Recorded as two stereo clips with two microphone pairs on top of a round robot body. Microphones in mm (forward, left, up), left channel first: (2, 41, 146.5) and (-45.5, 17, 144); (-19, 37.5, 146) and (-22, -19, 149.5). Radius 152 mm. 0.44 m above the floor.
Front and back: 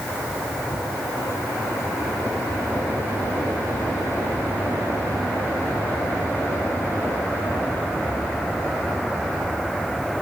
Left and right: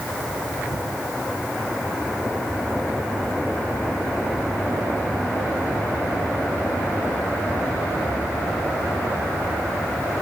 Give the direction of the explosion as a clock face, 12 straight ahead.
No explosion in this recording.